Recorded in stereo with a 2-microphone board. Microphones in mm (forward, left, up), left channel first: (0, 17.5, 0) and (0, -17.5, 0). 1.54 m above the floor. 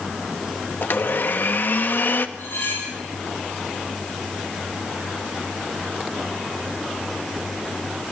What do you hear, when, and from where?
0.8 s a blender: 60° left (ahead or behind), 1.3 m
2.4 s cutlery clinking: 85° left, 8 m